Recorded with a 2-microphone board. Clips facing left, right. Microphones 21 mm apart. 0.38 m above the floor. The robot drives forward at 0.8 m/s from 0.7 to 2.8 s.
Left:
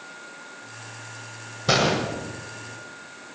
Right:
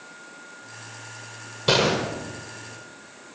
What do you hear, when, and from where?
1.7 s a gunshot: 85° right, 7.5 m; by 2.0 s 80° right, 7.5 m